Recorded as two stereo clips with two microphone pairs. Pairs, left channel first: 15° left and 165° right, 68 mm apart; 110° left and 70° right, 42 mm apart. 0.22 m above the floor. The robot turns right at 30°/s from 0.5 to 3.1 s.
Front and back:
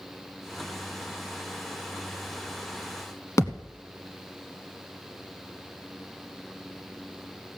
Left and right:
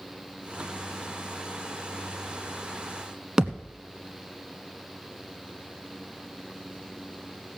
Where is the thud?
Straight ahead, 1.1 m.